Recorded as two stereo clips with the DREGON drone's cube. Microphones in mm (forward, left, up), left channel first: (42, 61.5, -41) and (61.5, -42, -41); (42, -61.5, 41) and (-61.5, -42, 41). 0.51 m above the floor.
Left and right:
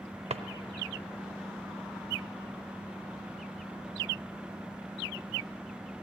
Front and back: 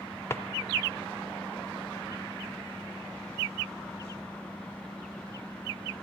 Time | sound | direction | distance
0.3 | a drawer | 80° right | 0.7 m